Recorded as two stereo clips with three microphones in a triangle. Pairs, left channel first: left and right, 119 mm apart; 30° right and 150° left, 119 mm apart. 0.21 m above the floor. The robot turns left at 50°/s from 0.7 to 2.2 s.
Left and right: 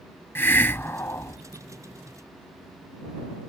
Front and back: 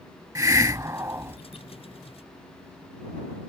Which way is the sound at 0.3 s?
140° left.